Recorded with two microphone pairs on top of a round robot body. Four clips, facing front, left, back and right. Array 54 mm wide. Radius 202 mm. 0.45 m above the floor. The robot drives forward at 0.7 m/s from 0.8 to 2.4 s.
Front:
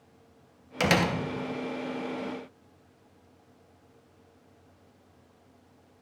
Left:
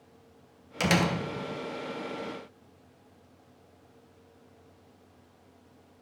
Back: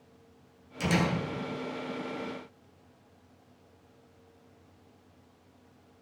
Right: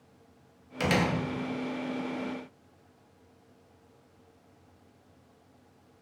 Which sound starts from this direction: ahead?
A door slam, at 0.8 s.